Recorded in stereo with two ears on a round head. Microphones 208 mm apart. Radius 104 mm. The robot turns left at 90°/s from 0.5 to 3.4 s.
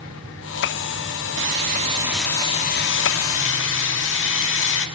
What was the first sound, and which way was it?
Sawing, 105° right.